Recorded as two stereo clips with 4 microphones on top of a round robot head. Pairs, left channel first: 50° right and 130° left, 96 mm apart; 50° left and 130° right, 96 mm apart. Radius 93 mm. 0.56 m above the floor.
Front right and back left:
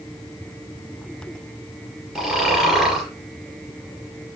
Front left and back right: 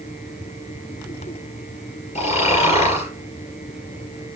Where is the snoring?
50° left, 3.5 m.